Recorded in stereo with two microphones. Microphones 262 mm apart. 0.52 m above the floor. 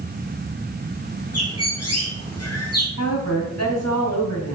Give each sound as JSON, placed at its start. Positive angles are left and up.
{"t": 1.3, "sound": "a bird", "side_deg": 70, "distance_m": 3.5}
{"t": 3.0, "sound": "a woman speaking", "side_deg": 75, "distance_m": 3.5}